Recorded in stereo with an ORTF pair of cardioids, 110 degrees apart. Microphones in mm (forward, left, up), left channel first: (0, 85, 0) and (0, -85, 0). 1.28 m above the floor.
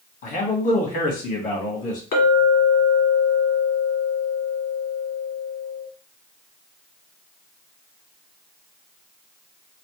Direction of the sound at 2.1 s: 60° left.